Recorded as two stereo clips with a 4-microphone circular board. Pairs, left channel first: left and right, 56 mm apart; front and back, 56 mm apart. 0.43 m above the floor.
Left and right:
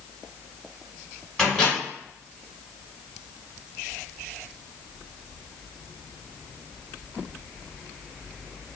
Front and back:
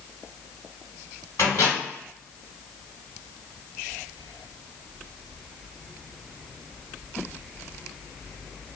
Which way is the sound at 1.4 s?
15° left.